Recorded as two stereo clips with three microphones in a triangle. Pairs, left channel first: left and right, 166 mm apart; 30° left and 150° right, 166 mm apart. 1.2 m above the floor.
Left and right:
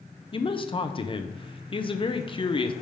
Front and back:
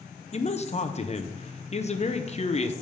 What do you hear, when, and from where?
0.3 s a man speaking: 50° left, 0.5 m